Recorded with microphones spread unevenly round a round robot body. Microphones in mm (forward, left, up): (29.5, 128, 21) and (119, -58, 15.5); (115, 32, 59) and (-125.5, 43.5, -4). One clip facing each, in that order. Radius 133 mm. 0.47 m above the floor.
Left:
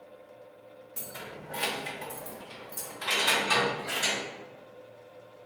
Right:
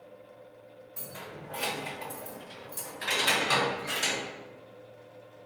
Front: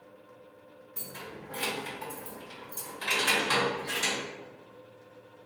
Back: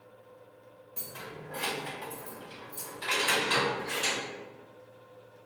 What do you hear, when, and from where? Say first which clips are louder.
1.0 s keys jangling: even, even; 65° left, 1.0 m; by 4.2 s 10° right, 1.8 m